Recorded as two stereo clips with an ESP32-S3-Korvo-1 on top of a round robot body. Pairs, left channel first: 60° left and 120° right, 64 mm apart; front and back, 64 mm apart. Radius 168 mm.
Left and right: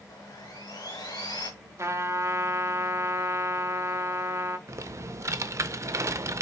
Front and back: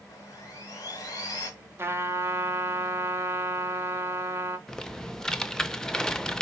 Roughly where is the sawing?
Ahead left.